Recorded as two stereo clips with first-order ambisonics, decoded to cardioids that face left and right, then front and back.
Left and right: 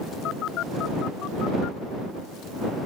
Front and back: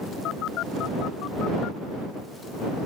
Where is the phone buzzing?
45° left.